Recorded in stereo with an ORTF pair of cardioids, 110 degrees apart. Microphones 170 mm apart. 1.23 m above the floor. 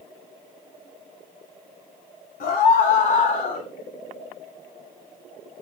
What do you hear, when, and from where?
2.4 s a scream: 65° left, 4 m; by 3.7 s 50° left, 2.5 m